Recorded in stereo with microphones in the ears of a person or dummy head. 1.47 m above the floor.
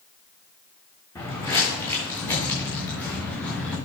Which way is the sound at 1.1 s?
15° left (ahead or behind).